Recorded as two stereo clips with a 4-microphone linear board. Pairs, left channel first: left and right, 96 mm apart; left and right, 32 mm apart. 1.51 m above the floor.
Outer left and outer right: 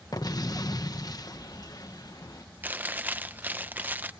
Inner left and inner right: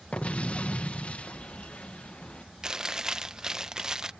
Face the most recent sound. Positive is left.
turn(degrees=-20)  # may be behind; listen again after turning